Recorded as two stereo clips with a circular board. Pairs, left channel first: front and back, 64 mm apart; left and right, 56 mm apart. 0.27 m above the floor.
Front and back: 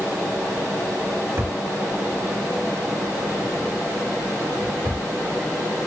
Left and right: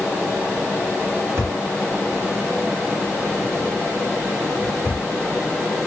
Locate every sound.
1.4 s a drawer: 125° right, 4.5 m